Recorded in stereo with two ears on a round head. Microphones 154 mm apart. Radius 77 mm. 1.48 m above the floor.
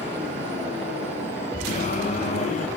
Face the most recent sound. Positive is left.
turn(degrees=40)  # may be behind; listen again after turning